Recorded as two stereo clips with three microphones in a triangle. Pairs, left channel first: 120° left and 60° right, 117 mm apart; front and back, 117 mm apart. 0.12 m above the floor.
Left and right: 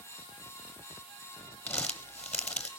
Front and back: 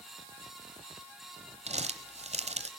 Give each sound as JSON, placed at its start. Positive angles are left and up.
{"t": 1.7, "sound": "crumpling", "azimuth_deg": -160, "distance_m": 1.1}